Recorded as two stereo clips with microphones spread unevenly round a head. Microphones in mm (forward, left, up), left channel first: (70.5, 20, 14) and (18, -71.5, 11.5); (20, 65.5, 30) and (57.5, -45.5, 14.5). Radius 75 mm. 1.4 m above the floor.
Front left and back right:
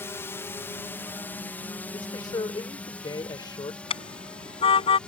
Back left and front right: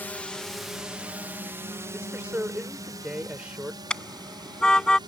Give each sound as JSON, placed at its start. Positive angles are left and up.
{"t": 0.0, "sound": "a drone", "azimuth_deg": 35}
{"t": 1.9, "sound": "a man speaking", "azimuth_deg": 10}
{"t": 3.9, "sound": "a car horn", "azimuth_deg": 30}